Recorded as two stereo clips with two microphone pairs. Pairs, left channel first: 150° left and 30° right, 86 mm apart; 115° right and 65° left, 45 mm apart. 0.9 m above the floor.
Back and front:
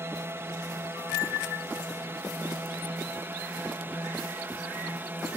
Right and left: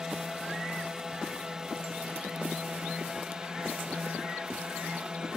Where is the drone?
5° right; by 5.4 s 10° left.